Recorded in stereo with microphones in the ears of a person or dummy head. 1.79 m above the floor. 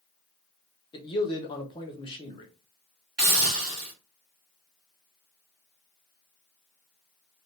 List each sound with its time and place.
0.9 s a man speaking: 25° left (ahead or behind), 1.0 m
3.2 s a hiss: 5° right (ahead or behind), 2.0 m